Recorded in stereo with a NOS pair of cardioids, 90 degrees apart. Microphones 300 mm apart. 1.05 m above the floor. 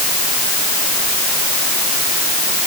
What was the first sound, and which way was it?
Only background noise.